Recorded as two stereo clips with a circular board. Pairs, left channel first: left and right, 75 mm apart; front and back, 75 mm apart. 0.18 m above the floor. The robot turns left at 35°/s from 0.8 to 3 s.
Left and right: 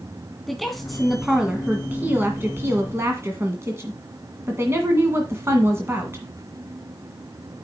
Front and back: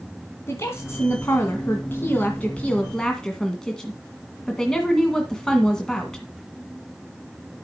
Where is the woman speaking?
5° left, 1.8 m; by 6.2 s 75° right, 1.8 m.